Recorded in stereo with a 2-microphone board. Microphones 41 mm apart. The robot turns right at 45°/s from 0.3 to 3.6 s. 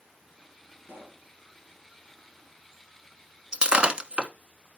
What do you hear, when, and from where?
0.8 s a pop: 60° right (ahead or behind), 2 m; by 1.3 s 55° right (ahead or behind), 2 m
3.5 s breaking glass: 25° right (ahead or behind), 0.9 m